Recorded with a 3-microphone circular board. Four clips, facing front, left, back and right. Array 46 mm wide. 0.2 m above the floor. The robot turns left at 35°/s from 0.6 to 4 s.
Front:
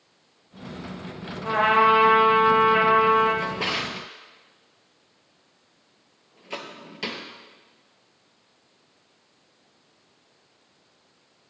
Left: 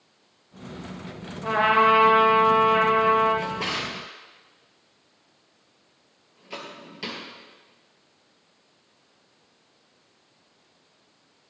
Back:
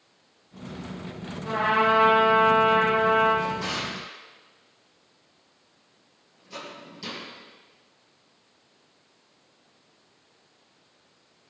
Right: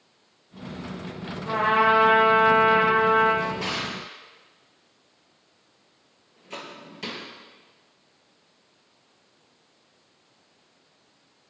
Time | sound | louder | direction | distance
1.4 | a trumpet | left 2 dB, front 4 dB | 70° left | 5 m
3.4 | a drawer | even, front 2 dB | 25° left | 3 m